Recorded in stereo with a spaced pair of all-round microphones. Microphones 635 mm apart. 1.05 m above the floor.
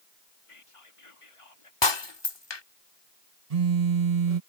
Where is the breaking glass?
40° left (ahead or behind).